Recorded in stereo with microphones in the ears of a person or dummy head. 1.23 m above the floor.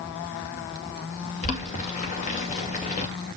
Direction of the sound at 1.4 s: 40° left (ahead or behind).